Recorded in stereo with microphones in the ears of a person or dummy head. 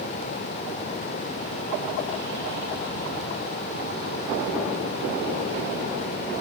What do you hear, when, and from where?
Only background noise.